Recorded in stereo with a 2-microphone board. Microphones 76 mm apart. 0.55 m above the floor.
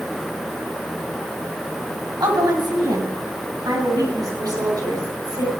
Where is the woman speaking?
65° right (ahead or behind), 3 m; by 5.6 s 60° right (ahead or behind), 5 m.